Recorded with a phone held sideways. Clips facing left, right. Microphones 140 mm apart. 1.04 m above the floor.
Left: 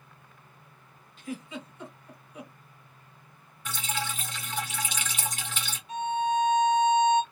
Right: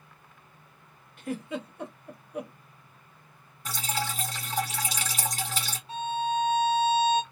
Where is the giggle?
60° right (ahead or behind), 1.3 m.